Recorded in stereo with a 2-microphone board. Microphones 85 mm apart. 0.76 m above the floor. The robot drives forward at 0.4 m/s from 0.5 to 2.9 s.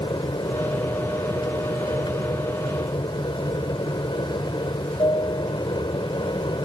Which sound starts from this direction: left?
An aircraft, at 0.0 s.